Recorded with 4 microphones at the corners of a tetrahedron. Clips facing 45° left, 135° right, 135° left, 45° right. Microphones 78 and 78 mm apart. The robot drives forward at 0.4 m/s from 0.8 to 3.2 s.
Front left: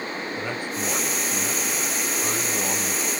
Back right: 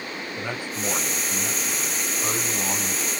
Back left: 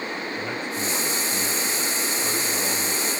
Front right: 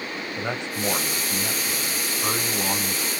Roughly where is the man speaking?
Ahead right.